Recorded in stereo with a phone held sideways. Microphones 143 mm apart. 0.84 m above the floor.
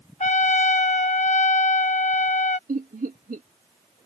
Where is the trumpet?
55° left (ahead or behind).